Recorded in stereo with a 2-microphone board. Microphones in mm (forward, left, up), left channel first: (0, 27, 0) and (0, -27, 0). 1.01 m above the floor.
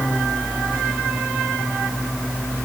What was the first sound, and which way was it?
Only background noise.